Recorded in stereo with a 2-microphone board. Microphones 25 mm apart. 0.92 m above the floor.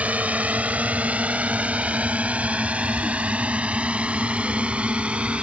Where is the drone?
75° right (ahead or behind); by 5.4 s 50° right (ahead or behind).